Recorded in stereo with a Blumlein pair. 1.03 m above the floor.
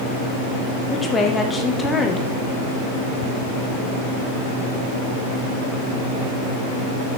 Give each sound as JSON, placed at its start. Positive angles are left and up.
{"t": 0.9, "sound": "a woman speaking", "azimuth_deg": 10, "distance_m": 0.9}